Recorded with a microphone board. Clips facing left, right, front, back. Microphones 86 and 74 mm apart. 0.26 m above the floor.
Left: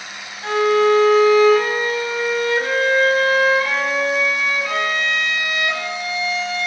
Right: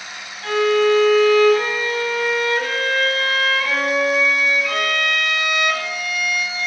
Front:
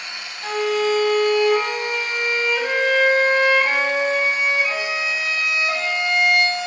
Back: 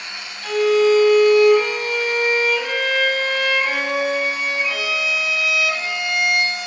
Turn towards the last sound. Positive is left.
turn(degrees=40)